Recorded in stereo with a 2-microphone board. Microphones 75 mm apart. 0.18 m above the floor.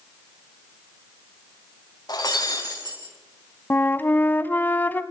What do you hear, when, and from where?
2.1 s breaking glass: 55° left (ahead or behind), 4 m
3.7 s a flute: 25° left (ahead or behind), 0.7 m